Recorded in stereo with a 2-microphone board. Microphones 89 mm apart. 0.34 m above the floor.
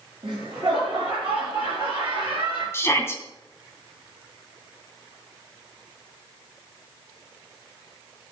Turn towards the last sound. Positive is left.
turn(degrees=25)  # may be behind; listen again after turning